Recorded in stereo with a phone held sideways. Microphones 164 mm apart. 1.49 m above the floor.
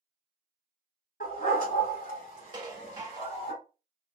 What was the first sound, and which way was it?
A dog barking, 65° left (ahead or behind).